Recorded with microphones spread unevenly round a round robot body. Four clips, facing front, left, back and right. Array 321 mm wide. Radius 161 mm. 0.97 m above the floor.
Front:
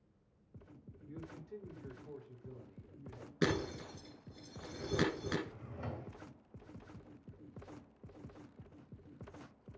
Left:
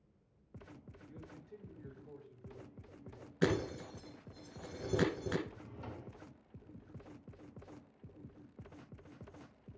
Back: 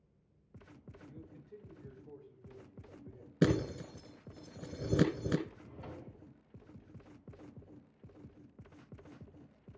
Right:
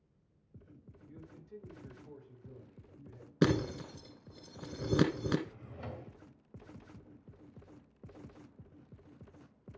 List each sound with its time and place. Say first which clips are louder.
1.1 s a man speaking: right 1 dB, front 6 dB; 10° right, 4.5 m; by 3.3 s 20° right, 6 m
3.4 s breaking glass: right 4 dB, back 4 dB; 125° right, 1.4 m
5.5 s a drawer: right 2 dB, front 3 dB; 35° right, 2.5 m